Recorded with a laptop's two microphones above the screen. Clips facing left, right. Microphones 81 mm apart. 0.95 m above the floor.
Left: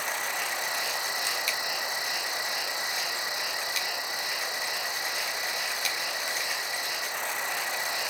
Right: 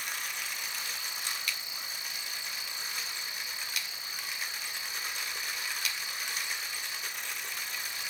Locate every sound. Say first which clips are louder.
0.0 s an insect: left 8 dB; 70° left (ahead or behind)